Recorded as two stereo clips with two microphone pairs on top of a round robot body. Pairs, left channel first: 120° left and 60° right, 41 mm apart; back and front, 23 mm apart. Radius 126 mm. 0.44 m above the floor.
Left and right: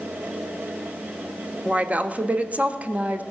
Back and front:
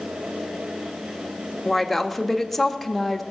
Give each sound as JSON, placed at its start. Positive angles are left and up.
{"t": 1.6, "sound": "a woman speaking", "azimuth_deg": -95, "distance_m": 1.2}